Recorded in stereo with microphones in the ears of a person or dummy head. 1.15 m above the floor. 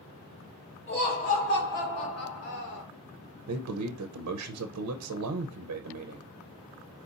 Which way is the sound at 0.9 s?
40° left (ahead or behind).